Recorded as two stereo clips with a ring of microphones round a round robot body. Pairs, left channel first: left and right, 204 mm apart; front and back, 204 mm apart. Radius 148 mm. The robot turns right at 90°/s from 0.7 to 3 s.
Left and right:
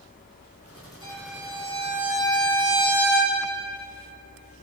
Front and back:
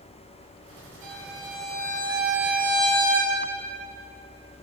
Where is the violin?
155° left, 5 m; by 3.3 s 25° right, 5 m.